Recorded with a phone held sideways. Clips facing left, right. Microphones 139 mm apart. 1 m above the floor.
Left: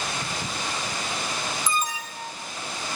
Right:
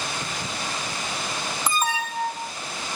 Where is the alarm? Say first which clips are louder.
Right 4 dB; 70° right (ahead or behind).